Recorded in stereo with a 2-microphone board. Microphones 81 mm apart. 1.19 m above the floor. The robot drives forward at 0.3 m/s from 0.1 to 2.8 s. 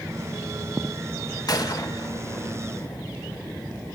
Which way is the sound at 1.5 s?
55° left (ahead or behind).